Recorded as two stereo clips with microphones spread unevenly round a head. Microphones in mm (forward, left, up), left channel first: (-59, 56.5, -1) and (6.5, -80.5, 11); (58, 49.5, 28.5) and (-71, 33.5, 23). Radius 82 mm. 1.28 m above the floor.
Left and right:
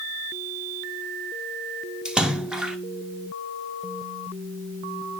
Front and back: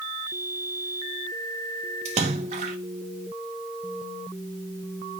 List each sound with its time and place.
2.0 s a splash: 145° right, 0.7 m